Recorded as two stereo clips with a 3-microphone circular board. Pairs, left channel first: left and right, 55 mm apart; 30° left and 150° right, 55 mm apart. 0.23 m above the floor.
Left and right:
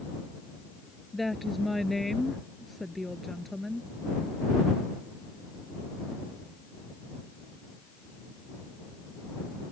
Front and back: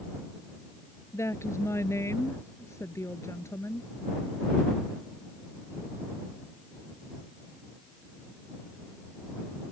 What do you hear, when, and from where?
1.1 s a woman speaking: straight ahead